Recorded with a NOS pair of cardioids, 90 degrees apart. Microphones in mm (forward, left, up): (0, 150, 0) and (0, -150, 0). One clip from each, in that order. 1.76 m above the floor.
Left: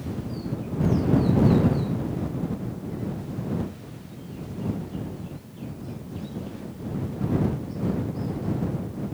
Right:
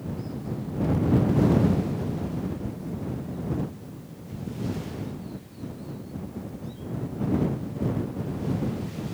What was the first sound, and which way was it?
Only background noise.